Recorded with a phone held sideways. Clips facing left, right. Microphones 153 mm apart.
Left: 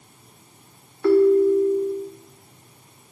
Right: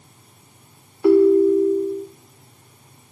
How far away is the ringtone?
About 1.5 m.